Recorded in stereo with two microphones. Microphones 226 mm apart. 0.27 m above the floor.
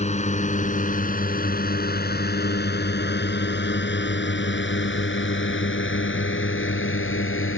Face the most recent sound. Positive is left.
turn(degrees=75)  # may be behind; listen again after turning